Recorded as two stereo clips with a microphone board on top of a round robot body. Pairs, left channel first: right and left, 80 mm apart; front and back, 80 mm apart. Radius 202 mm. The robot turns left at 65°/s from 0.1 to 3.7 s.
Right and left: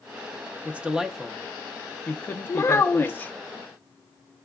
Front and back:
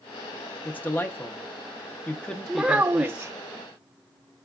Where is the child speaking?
100° right, 0.6 m; by 3.3 s 155° right, 0.6 m.